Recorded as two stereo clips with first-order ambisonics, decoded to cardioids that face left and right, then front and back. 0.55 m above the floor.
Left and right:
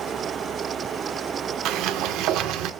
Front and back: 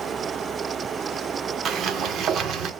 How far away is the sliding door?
About 0.5 m.